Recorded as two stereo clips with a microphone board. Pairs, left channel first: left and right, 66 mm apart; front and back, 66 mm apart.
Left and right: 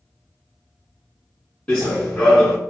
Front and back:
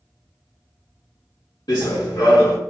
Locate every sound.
1.7 s running footsteps: 20° left, 1.6 m